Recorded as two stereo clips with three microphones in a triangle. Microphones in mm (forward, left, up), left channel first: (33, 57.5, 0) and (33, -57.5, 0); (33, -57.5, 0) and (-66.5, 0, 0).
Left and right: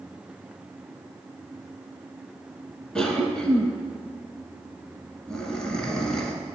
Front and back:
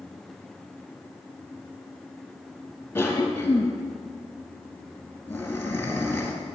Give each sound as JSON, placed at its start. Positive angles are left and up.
{"t": 3.0, "sound": "a cough", "azimuth_deg": 15, "distance_m": 1.4}